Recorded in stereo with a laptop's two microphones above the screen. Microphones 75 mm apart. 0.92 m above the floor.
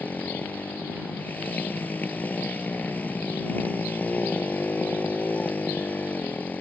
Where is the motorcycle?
25° left (ahead or behind).